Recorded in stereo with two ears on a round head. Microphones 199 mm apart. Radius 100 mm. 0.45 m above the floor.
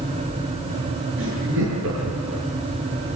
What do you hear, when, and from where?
1.2 s laughter: 65° right (ahead or behind), 7 m